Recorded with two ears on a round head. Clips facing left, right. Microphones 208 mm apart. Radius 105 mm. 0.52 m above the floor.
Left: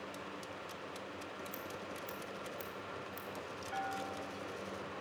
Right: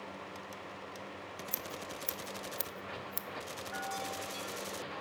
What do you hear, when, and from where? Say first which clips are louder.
1.5 s scissors: right 1 dB; 60° right (ahead or behind), 0.7 m
3.7 s a bell: even; 50° left (ahead or behind), 2 m